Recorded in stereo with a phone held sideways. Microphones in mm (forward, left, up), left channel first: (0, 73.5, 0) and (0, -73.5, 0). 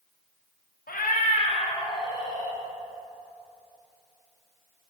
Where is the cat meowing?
80° left, 0.7 m; by 2.6 s 25° left (ahead or behind), 1.8 m.